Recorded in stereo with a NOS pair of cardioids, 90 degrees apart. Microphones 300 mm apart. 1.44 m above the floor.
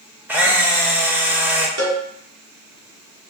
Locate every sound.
0.3 s a camera shutter: 5° right, 0.7 m
1.8 s a cowbell: 55° right, 1.3 m